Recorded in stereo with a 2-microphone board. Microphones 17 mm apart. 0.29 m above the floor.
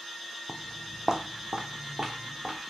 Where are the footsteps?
10° left (ahead or behind), 0.5 m; by 2.6 s 65° right (ahead or behind), 1.5 m.